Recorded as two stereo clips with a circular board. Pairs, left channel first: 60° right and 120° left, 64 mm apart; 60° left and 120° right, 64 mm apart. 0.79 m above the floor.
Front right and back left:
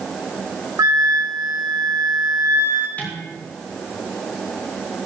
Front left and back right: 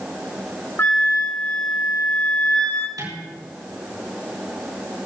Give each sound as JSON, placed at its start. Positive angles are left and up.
{"t": 0.8, "sound": "a flute", "azimuth_deg": 110, "distance_m": 2.0}
{"t": 3.0, "sound": "dishes clattering", "azimuth_deg": -120, "distance_m": 7.0}